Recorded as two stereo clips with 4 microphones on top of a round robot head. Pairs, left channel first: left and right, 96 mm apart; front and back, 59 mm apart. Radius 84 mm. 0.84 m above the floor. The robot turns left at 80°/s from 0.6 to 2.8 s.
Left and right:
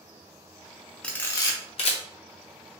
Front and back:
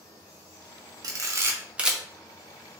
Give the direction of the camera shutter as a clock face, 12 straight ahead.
6 o'clock.